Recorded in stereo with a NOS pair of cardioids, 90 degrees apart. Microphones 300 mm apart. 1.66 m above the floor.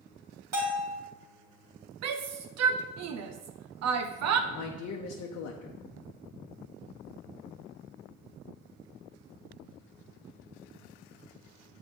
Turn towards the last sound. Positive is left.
turn(degrees=60)